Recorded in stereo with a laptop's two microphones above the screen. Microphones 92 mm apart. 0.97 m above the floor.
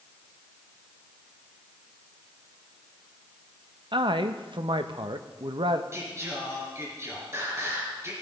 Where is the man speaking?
60° right (ahead or behind), 0.7 m.